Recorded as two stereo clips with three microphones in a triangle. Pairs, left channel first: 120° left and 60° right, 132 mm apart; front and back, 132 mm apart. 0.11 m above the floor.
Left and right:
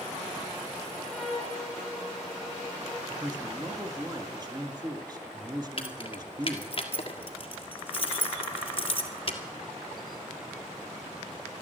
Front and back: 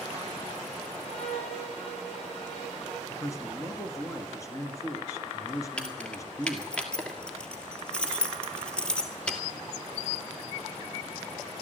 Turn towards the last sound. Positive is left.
turn(degrees=80)